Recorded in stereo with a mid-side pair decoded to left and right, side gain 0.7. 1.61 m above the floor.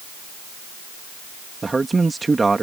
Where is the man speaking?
15° right.